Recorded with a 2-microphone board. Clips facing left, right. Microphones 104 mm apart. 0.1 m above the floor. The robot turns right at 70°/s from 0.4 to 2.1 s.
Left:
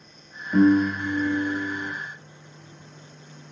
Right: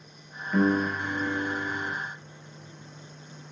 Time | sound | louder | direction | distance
0.5 | a piano | left 6 dB | 20° left (ahead or behind) | 1.2 m